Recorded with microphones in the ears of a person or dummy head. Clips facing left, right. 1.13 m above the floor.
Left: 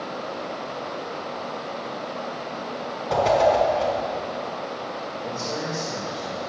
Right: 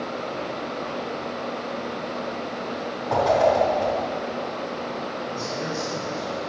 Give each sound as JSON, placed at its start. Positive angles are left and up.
{"t": 3.1, "sound": "a whoosh", "side_deg": 35, "distance_m": 4.0}
{"t": 5.2, "sound": "a man speaking", "side_deg": 35, "distance_m": 4.5}